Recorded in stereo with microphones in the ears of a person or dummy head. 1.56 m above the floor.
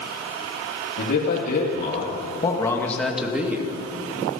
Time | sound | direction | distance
1.0 | a man speaking | 65° left (ahead or behind) | 3 m